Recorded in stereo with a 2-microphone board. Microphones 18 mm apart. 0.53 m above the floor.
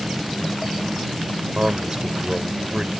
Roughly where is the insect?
Right.